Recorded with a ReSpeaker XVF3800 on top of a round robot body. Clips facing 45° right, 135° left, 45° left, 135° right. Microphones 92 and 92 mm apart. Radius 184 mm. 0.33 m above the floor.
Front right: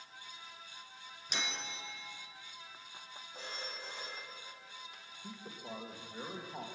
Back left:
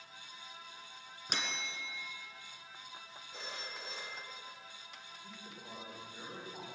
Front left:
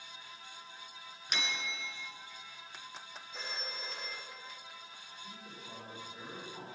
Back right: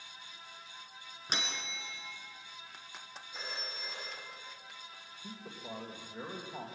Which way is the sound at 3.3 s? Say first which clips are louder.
Even, front left 1 dB; 140° left.